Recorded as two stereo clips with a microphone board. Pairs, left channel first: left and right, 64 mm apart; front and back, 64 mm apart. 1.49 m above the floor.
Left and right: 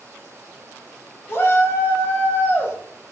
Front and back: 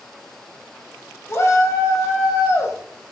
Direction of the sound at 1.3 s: 40° left.